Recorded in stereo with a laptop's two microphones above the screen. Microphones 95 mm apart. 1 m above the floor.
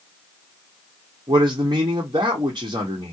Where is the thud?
No thud in this recording.